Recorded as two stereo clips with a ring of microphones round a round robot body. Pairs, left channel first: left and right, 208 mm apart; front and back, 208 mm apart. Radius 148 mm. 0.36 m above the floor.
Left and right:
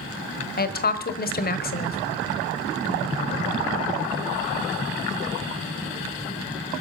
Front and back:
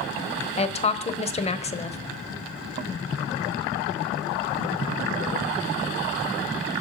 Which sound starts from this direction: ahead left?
A woman speaking, at 0.6 s.